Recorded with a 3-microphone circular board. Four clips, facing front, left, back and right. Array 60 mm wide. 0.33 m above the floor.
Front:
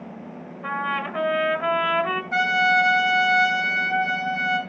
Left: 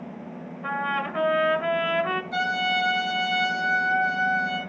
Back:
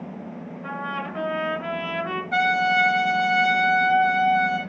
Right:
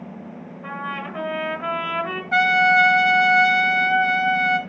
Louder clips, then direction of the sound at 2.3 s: Right 13 dB, even; 95° right.